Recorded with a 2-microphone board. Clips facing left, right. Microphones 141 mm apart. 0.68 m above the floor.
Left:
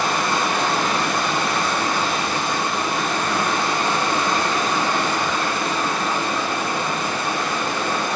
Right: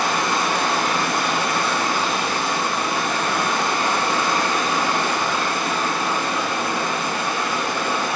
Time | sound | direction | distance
0.0 | running water | 10° right (ahead or behind) | 0.8 m